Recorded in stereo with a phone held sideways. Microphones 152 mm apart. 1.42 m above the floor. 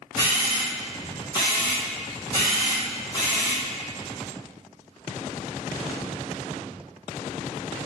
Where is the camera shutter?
30° left (ahead or behind), 1.4 m.